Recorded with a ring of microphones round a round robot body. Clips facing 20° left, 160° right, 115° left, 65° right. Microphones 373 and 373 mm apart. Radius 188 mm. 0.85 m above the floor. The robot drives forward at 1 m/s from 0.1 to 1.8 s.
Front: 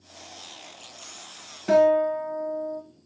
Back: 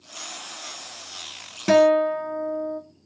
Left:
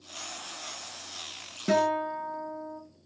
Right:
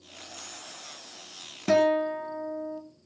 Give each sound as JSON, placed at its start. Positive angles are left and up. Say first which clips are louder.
{"t": 1.7, "sound": "a guitar", "louder": "back 2 dB, right 4 dB", "azimuth_deg": -145, "distance_m": 0.8}